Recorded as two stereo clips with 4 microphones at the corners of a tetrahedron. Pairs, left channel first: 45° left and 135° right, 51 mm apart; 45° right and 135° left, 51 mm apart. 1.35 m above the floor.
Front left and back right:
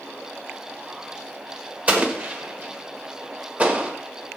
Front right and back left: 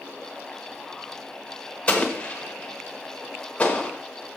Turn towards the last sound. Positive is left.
turn(degrees=-95)